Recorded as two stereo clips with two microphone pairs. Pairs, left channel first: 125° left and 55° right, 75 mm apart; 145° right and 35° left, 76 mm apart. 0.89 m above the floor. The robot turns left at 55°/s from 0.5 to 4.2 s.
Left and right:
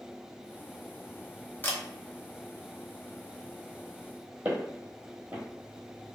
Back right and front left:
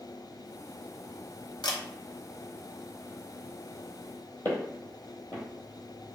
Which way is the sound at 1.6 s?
170° right.